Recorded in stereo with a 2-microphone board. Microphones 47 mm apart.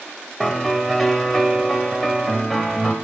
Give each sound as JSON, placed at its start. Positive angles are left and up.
{"t": 0.4, "sound": "a piano", "side_deg": 5, "distance_m": 1.2}